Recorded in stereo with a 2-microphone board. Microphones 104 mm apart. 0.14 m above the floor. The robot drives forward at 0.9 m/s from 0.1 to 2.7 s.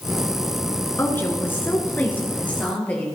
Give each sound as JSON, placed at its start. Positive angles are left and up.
{"t": 1.0, "sound": "a woman speaking", "side_deg": 25, "distance_m": 2.0}